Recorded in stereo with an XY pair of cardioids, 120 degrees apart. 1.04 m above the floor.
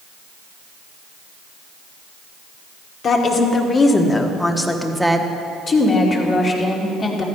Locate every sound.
3.0 s a woman speaking: 45° left, 2 m; by 5.3 s 10° right, 1.5 m
5.7 s a woman speaking: 35° left, 3 m